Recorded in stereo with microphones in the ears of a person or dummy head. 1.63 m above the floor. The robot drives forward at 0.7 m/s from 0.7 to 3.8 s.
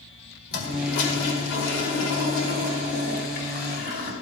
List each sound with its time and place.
0.5 s a toilet flushing: 60° left (ahead or behind), 2.5 m; by 4.1 s 45° left (ahead or behind), 3 m